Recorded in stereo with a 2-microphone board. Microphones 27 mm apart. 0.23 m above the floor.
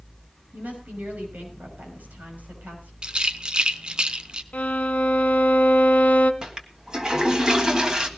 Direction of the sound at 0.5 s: 75° right (ahead or behind).